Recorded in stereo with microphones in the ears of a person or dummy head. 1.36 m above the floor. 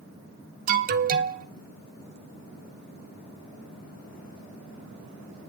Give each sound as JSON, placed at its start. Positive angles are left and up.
{"t": 0.7, "sound": "an alarm", "side_deg": -40, "distance_m": 1.0}